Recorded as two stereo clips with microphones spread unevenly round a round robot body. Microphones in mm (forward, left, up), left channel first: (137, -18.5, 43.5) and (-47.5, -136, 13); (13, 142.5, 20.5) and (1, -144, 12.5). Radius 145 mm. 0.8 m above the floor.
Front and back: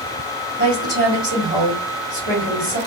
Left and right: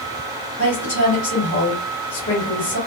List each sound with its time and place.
0.6 s a woman speaking: 40° left, 1.8 m